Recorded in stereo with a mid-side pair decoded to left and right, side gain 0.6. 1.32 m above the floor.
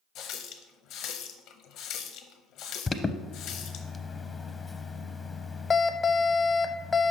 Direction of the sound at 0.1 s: 70° left.